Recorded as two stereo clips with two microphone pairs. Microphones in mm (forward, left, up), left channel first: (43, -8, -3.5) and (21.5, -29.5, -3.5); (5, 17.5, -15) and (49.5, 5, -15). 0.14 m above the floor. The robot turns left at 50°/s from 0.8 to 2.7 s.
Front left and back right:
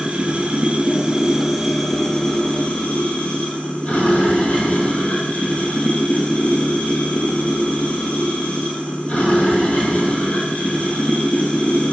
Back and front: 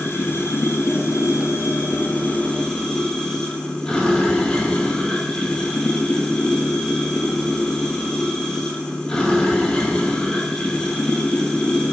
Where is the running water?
175° right, 0.8 m; by 11.9 s 90° left, 0.8 m.